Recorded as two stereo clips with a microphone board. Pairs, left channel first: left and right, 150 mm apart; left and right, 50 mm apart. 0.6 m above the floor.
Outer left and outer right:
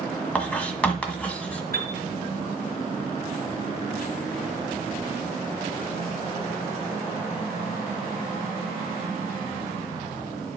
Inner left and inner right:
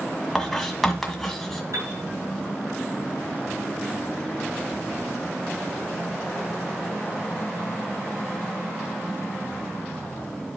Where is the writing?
10° left (ahead or behind), 1.6 m.